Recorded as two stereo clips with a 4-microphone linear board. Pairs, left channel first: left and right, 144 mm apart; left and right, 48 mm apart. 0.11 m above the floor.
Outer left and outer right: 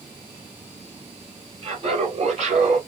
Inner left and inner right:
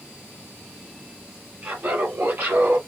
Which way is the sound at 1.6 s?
40° right (ahead or behind).